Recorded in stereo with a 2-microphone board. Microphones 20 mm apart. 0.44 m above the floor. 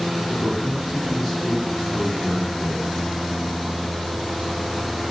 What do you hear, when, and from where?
0.3 s a man speaking: 10° left (ahead or behind), 4.5 m